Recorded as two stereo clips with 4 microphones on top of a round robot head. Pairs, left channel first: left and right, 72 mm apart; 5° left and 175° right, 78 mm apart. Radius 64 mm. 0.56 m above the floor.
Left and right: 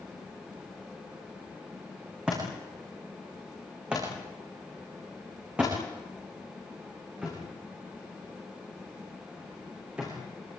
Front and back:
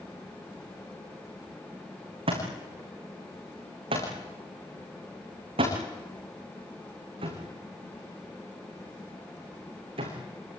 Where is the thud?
170° right, 7.5 m.